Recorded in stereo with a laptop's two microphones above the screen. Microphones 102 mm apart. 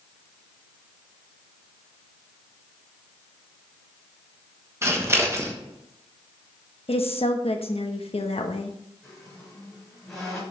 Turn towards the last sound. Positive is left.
turn(degrees=5)  # may be behind; listen again after turning